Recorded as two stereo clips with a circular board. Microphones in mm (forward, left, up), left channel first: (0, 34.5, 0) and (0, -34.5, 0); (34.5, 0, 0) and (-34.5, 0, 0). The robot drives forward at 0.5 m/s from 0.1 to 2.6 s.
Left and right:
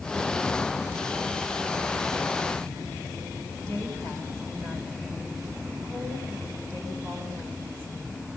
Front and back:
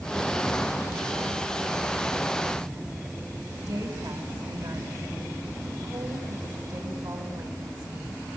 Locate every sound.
3.6 s a woman speaking: 160° left, 8 m